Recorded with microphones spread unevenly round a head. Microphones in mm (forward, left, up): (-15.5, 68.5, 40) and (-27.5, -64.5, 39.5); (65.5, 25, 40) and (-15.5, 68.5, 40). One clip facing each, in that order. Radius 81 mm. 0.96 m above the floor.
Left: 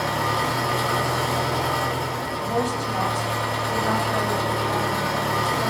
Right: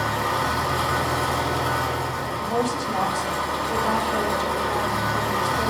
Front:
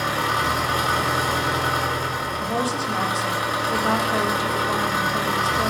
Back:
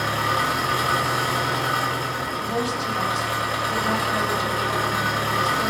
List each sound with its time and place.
0.0 s an engine running: 40° left, 1.0 m
2.4 s a woman speaking: 20° right, 0.5 m